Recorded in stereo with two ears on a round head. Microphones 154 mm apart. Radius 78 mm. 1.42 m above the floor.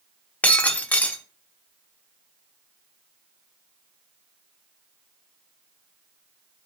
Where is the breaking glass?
10° left (ahead or behind), 1.0 m.